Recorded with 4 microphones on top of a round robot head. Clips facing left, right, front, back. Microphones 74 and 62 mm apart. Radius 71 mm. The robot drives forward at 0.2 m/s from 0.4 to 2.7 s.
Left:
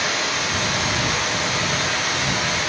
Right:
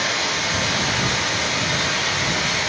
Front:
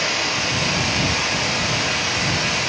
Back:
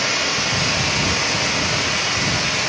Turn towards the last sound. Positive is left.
turn(degrees=-175)